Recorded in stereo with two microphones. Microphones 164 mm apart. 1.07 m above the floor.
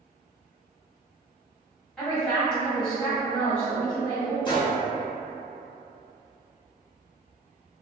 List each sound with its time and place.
2.0 s a woman speaking: 5° left (ahead or behind), 1.3 m
4.5 s a gunshot: 30° left (ahead or behind), 0.8 m